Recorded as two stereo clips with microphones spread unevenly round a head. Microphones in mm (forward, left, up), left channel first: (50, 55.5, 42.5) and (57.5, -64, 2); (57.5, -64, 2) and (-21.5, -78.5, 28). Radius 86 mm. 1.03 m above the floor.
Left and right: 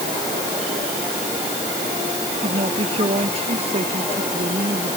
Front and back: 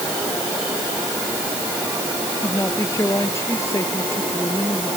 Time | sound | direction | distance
2.4 | a woman speaking | 50° right | ?